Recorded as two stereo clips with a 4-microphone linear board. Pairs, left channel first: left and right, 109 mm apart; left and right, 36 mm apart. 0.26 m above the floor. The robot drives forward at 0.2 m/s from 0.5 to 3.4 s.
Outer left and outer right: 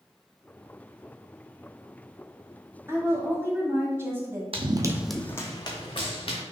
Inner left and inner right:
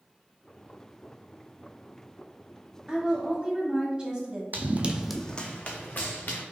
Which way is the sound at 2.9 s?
25° right (ahead or behind).